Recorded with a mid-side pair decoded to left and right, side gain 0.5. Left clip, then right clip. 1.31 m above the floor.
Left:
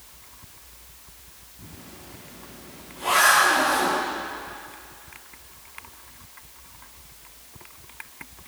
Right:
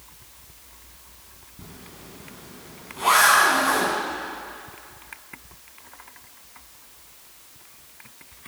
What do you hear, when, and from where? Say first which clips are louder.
1.6 s a zipper: right 1 dB; 55° right, 10 m